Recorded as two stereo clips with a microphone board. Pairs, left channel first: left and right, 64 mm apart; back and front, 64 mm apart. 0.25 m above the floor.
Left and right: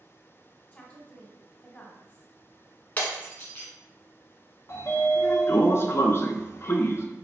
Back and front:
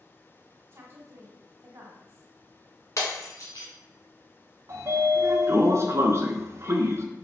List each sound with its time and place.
0.7 s a woman speaking: 30° left, 1.7 m
3.0 s breaking glass: 150° left, 1.5 m
4.7 s a sliding door: 40° left, 0.7 m